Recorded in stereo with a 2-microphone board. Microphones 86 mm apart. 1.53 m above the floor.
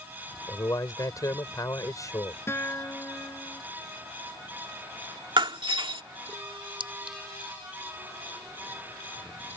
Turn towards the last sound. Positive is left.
turn(degrees=-75)  # may be behind; listen again after turning